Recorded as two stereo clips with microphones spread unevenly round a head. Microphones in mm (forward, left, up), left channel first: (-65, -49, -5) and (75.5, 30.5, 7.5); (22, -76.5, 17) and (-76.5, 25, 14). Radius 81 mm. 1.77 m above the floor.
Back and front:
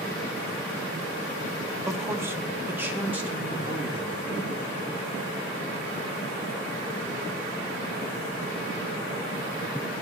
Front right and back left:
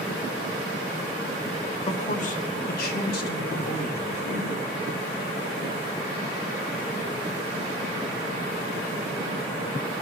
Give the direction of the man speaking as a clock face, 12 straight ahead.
1 o'clock.